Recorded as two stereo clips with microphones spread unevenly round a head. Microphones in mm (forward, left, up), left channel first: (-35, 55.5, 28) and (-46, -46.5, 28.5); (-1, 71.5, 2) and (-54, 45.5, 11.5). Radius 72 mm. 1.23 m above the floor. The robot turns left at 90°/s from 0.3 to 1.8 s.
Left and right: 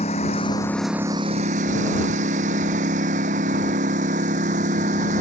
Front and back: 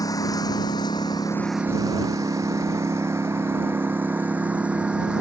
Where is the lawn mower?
40° left; by 5.2 s 70° right.